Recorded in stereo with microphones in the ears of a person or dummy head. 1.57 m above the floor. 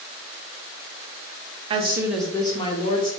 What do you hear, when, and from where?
1.7 s a woman speaking: 35° right (ahead or behind), 0.5 m; by 3.1 s 45° left (ahead or behind), 0.8 m